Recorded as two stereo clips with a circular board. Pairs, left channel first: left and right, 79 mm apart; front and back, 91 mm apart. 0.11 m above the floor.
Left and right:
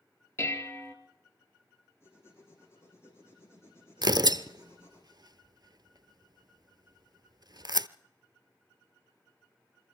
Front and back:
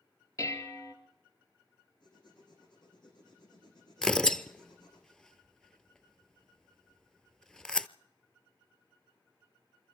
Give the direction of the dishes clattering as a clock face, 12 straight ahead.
11 o'clock.